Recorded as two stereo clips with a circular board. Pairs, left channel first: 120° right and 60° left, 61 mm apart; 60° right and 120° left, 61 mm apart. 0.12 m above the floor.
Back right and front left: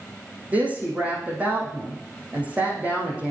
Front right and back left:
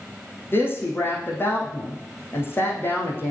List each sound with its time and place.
0.5 s a woman speaking: 10° right, 5 m